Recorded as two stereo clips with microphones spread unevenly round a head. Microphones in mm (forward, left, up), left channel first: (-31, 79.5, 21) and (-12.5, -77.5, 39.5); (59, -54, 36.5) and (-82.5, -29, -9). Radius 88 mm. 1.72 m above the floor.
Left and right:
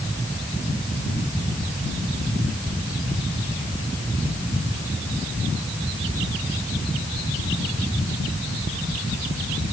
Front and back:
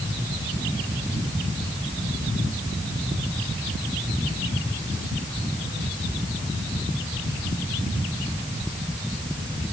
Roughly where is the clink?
I don't hear a clink.